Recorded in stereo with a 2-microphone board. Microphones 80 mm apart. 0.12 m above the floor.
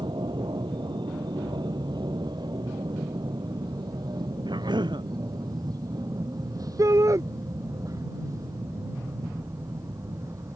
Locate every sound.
0.0 s an aircraft: 65° right (ahead or behind); by 10.6 s 40° right (ahead or behind)
4.5 s a cough: 70° right (ahead or behind)
6.8 s a shout: 45° right (ahead or behind)